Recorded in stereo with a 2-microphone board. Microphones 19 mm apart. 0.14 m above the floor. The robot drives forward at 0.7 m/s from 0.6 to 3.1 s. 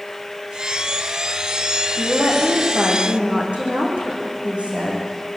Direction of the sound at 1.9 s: 75° right (ahead or behind).